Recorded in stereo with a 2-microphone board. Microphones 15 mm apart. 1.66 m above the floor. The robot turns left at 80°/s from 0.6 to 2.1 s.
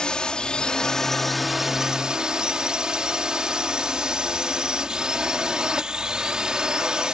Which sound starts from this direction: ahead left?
A drone, at 0.0 s.